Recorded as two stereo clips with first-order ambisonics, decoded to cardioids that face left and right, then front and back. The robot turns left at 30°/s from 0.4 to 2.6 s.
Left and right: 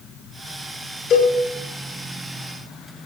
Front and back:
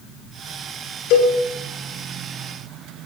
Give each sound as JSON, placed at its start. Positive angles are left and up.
{"t": 1.1, "sound": "a cowbell", "azimuth_deg": 30, "distance_m": 9.0}